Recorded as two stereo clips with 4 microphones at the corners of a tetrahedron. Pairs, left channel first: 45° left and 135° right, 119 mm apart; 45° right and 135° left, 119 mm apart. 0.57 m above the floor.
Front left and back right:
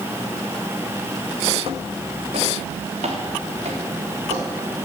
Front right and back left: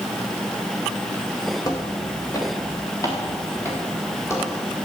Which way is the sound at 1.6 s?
105° right.